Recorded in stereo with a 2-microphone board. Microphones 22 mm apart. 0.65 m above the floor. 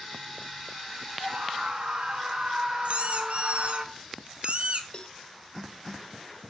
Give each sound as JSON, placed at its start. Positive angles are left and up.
{"t": 1.2, "sound": "a scream", "side_deg": -50, "distance_m": 3.5}
{"t": 2.9, "sound": "a squeak", "side_deg": -60, "distance_m": 1.2}
{"t": 4.9, "sound": "a cowbell", "side_deg": 45, "distance_m": 0.6}